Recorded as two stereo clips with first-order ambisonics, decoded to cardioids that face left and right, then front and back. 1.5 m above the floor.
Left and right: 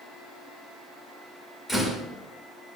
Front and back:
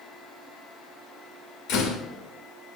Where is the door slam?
15° left, 1.7 m.